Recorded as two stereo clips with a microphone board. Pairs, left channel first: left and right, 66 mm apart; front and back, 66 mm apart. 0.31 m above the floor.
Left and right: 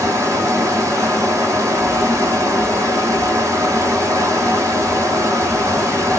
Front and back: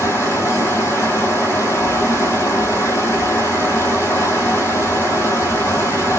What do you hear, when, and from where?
0.0 s running water: 50° right, 1.7 m